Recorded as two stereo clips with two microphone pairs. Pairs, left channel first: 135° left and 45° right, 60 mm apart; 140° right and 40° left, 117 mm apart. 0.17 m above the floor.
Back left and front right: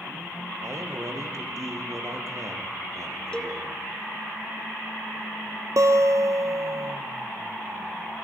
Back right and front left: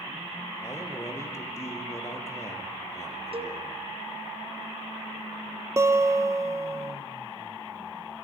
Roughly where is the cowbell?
Ahead left.